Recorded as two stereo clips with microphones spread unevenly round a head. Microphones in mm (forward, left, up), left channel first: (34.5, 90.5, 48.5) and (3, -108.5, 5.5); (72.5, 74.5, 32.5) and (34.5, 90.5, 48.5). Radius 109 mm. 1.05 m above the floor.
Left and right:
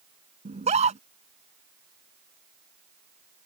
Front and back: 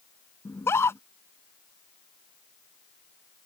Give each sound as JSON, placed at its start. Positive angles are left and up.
{"t": 0.5, "sound": "a scream", "azimuth_deg": -40}